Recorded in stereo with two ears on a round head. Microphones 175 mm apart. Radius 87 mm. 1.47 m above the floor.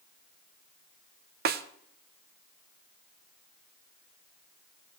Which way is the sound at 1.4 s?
50° right (ahead or behind).